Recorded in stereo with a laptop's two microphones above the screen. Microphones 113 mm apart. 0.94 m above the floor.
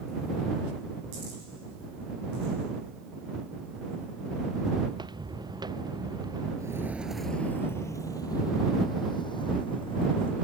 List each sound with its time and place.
4.9 s footsteps: 40° right (ahead or behind); by 6.5 s 35° right (ahead or behind)
6.6 s footsteps: 30° right (ahead or behind); by 10.3 s 50° left (ahead or behind)